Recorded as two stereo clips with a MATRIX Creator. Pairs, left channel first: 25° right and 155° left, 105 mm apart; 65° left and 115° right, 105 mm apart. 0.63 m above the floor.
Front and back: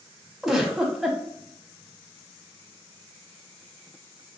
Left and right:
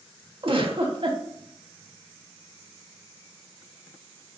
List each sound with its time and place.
0.4 s a giggle: 115° right, 0.6 m